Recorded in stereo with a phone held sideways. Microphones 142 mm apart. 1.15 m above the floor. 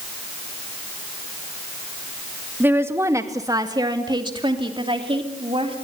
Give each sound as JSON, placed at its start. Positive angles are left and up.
{"t": 2.6, "sound": "a woman speaking", "side_deg": -15, "distance_m": 1.7}